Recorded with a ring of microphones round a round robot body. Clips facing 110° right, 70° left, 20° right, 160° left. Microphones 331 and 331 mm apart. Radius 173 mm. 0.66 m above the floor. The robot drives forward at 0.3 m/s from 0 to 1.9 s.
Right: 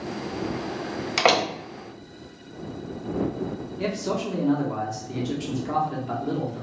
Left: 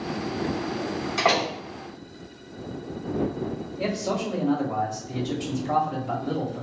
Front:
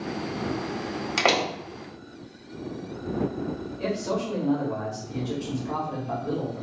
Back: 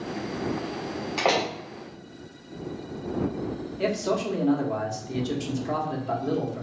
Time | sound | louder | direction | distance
1.2 | a door slam | right 4 dB, even | 75° right | 0.8 m
3.8 | a man speaking | even, back 3 dB | 170° left | 1.4 m